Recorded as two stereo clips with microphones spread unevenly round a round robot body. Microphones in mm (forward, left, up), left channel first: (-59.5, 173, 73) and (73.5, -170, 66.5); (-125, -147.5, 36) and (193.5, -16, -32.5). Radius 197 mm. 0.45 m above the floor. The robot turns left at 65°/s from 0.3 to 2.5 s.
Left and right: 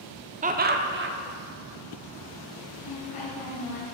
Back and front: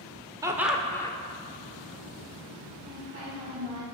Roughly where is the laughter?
Ahead right.